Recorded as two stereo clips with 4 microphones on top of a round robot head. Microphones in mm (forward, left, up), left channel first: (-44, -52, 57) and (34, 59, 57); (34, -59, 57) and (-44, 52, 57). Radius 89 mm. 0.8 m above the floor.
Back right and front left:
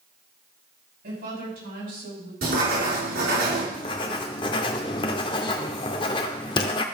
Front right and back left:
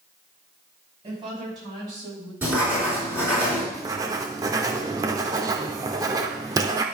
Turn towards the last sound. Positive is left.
turn(degrees=-175)